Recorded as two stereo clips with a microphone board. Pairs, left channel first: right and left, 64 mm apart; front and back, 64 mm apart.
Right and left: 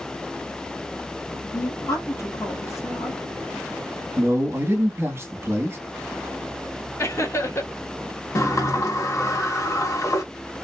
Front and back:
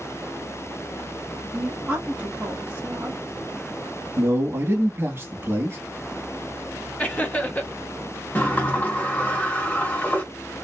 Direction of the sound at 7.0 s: 65° right.